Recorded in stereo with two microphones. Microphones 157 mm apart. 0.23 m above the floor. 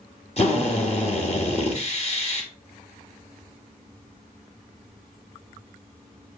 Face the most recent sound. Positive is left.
turn(degrees=40)  # may be behind; listen again after turning